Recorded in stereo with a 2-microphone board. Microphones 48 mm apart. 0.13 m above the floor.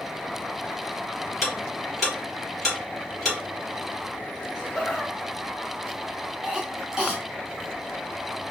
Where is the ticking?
Centre (ahead or behind), 2.5 m.